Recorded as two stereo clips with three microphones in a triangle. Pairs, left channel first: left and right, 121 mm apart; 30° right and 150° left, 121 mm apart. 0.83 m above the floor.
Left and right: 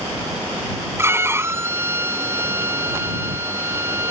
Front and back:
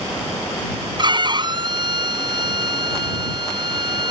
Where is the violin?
160° right.